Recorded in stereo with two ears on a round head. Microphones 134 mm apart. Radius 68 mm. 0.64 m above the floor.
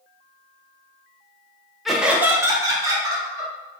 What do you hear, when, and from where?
1.9 s laughter: centre (ahead or behind), 0.6 m; by 3.5 s 25° right (ahead or behind), 1.2 m